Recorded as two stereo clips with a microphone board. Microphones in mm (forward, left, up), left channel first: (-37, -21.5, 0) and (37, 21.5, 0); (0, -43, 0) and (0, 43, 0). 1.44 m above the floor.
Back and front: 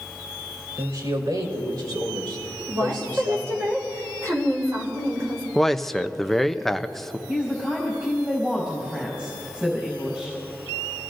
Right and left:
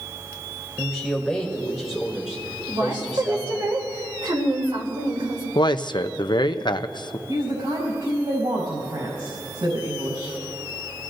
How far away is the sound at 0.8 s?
About 4 m.